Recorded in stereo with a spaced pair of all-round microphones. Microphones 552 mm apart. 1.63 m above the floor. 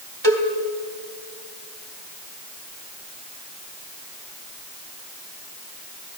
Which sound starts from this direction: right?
A cowbell, at 0.2 s.